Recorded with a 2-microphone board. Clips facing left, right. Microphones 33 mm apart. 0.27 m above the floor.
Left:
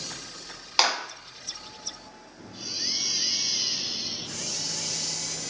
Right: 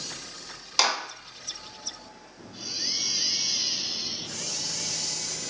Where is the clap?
20° left (ahead or behind), 1.7 m.